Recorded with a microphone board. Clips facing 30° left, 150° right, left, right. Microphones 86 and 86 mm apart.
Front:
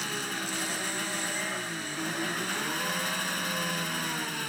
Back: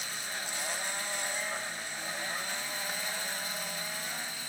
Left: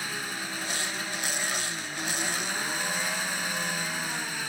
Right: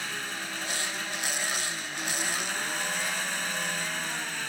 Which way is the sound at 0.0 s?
5° left.